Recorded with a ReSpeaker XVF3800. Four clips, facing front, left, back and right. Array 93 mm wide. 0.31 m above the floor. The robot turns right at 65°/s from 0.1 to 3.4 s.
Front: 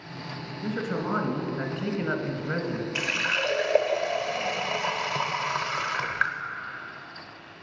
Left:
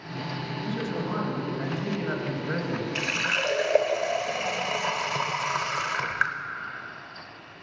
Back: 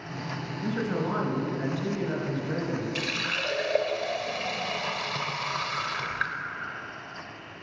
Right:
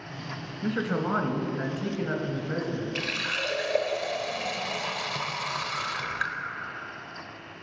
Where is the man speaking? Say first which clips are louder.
Right 4 dB, even; 80° right, 1.6 m; by 2.9 s 65° left, 1.6 m.